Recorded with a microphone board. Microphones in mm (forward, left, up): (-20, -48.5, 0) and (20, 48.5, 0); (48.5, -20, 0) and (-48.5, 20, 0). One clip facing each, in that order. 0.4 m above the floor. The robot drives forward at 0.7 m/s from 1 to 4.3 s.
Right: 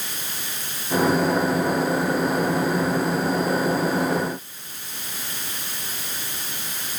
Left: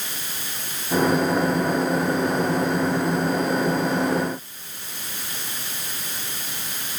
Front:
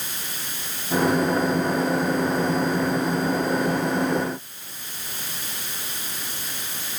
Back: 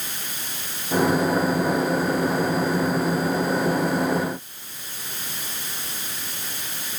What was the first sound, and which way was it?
Only background noise.